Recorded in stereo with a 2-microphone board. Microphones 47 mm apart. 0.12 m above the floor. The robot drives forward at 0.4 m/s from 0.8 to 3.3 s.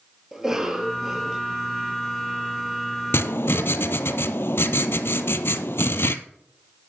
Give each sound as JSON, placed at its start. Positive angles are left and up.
{"t": 0.3, "sound": "a cough", "side_deg": -10, "distance_m": 2.0}
{"t": 3.1, "sound": "writing", "side_deg": 70, "distance_m": 0.7}